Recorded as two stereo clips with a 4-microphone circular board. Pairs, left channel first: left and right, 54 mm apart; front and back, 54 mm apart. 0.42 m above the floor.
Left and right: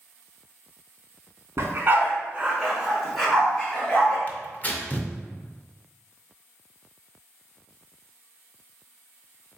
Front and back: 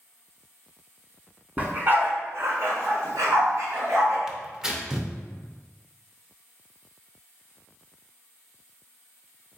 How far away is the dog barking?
About 0.8 m.